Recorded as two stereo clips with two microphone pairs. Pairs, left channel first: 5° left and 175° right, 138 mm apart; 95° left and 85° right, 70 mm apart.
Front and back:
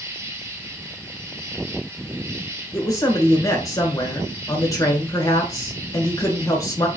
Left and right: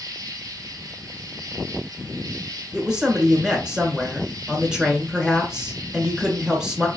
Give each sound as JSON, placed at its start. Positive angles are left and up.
{"t": 0.0, "sound": "an insect", "azimuth_deg": -105, "distance_m": 1.2}
{"t": 2.7, "sound": "a man speaking", "azimuth_deg": -15, "distance_m": 1.4}